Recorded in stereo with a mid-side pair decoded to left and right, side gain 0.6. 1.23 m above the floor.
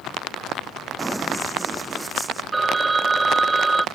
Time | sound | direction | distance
1.0 | running footsteps | 10° right | ?
2.5 | a phone ringing | 20° right | ?